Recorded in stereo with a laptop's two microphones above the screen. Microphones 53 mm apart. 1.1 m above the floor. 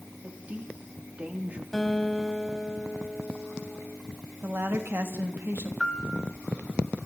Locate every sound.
0.2 s a woman speaking: 30° right (ahead or behind), 2.5 m
1.7 s a guitar: 5° left (ahead or behind), 4 m
4.4 s a woman speaking: 50° right (ahead or behind), 2.5 m
5.8 s a piano: 5° left (ahead or behind), 3 m